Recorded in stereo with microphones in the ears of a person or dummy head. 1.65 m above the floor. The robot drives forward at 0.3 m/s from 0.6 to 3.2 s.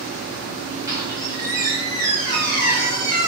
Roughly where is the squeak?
Centre.